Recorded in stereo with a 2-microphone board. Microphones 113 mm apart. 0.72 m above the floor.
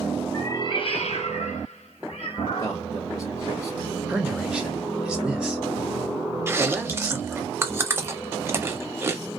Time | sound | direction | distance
0.3 | a cat meowing | 25° left (ahead or behind) | 0.6 m
2.6 | a man speaking | 45° left (ahead or behind) | 0.9 m
4.1 | a man speaking | 5° right (ahead or behind) | 0.9 m
6.5 | chewing | 25° right (ahead or behind) | 0.5 m